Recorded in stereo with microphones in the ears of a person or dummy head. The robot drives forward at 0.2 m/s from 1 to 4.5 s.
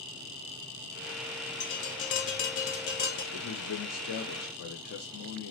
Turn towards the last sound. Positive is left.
turn(degrees=55)  # may be behind; listen again after turning